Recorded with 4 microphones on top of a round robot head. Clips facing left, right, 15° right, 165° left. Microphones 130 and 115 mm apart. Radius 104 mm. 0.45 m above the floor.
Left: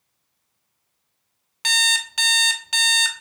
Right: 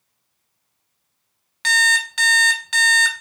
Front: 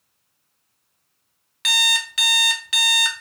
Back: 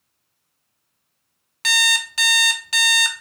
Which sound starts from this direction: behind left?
An alarm clock, at 1.6 s.